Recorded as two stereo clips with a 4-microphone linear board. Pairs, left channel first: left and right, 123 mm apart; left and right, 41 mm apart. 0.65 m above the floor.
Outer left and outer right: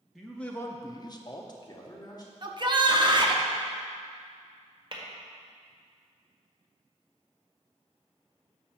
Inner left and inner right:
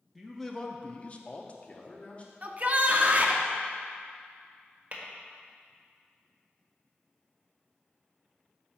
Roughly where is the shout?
Right.